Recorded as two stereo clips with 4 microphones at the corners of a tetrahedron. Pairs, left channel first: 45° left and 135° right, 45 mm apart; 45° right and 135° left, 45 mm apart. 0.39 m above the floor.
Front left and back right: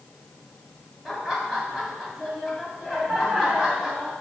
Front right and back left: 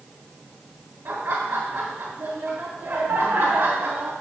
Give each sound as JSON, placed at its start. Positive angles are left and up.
{"t": 1.1, "sound": "laughter", "azimuth_deg": 145, "distance_m": 3.0}